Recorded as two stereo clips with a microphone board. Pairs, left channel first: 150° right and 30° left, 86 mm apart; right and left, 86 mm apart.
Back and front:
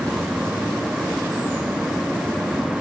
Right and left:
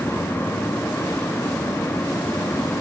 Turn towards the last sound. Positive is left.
No sound to turn to.